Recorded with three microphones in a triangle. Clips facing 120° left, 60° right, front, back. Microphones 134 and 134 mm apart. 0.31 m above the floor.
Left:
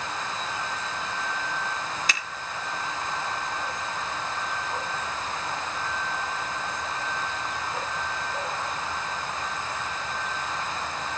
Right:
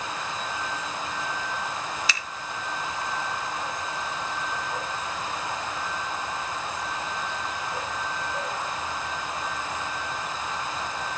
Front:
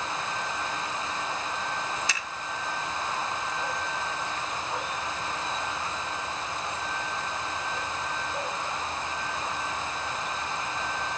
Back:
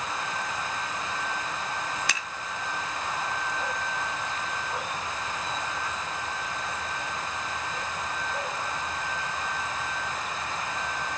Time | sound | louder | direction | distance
2.1 | scissors | even, back 1 dB | 160° left | 3.5 m